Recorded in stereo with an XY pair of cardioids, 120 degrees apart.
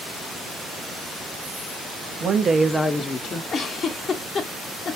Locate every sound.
2.2 s a woman speaking: 55° right, 0.7 m; by 3.4 s 50° left, 0.9 m
3.5 s a giggle: 45° left, 0.8 m